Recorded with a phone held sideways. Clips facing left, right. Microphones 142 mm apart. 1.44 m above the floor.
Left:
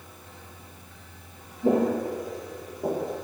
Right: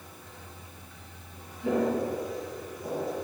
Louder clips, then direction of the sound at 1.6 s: Left 4 dB; 45° left (ahead or behind).